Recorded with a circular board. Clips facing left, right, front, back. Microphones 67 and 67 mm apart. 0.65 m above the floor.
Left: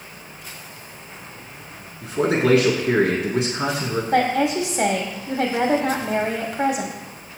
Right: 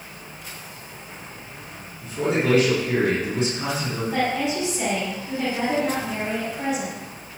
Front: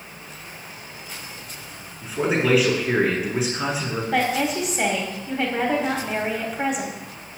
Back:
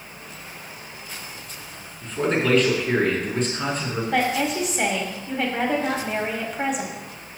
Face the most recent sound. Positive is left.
turn(degrees=90)